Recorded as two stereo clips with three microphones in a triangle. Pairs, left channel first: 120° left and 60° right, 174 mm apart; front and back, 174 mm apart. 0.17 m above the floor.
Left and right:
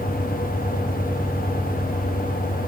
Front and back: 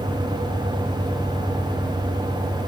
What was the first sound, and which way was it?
Only background noise.